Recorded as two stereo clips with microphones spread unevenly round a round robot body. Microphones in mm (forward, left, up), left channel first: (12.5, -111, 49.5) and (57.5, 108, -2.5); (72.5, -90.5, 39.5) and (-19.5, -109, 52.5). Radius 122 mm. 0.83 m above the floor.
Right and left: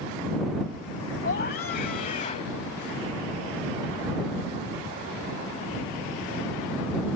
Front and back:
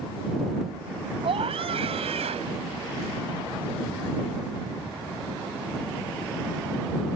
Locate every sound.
1.2 s a scream: 155° right; by 2.5 s 170° right